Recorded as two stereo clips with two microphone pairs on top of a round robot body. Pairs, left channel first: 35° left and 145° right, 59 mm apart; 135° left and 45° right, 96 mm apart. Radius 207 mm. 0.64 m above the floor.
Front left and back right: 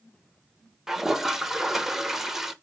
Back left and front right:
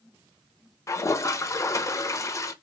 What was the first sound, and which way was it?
A toilet flushing, 120° left.